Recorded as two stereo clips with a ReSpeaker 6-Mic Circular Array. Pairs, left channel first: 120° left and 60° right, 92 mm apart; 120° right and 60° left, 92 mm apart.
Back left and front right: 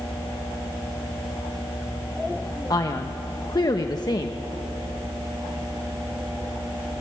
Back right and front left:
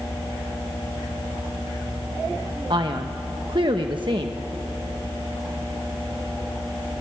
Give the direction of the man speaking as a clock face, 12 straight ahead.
9 o'clock.